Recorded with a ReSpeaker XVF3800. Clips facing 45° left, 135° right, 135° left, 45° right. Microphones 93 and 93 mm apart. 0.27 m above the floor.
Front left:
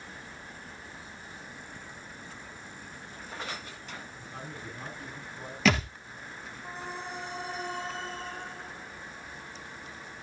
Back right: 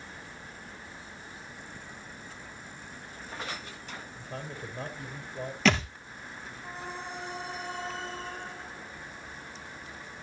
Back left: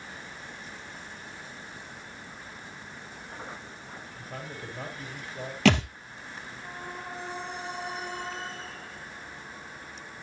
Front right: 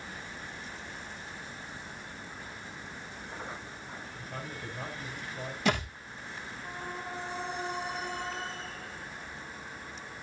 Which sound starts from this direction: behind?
A man speaking, at 4.2 s.